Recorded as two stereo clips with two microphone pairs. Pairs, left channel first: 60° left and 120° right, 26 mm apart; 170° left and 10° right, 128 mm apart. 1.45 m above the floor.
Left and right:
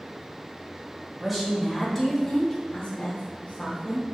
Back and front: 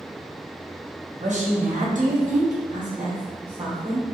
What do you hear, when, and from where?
1.2 s a woman speaking: 35° right, 1.2 m; by 4.1 s 45° left, 1.0 m